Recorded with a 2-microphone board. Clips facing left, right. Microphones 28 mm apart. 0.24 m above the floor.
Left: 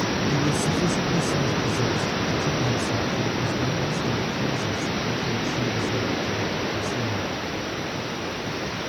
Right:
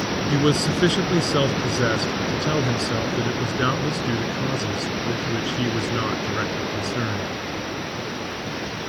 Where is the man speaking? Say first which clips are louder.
Right 3 dB; 65° right (ahead or behind).